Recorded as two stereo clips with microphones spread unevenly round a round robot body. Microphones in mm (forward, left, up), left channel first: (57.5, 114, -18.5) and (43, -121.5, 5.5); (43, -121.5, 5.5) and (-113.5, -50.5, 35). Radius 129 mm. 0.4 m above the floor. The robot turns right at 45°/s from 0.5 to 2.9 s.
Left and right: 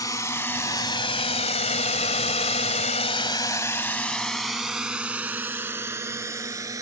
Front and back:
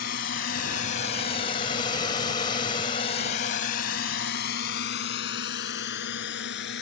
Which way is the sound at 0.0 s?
10° left.